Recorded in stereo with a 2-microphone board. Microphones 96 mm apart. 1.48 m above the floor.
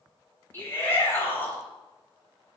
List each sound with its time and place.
0.5 s a shout: 25° left (ahead or behind), 8 m